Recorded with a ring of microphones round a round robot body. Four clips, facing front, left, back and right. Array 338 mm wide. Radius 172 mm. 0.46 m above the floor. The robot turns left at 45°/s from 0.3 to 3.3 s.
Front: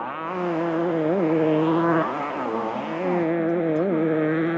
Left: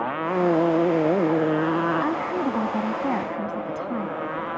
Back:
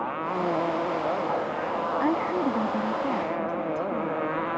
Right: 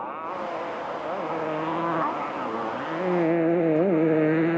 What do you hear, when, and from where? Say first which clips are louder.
0.0 s a motorcycle: left 8 dB, front 1 dB; 85° left; by 4.6 s 50° right
2.0 s a woman speaking: left 3 dB, back 1 dB; 145° left; by 4.1 s 90° left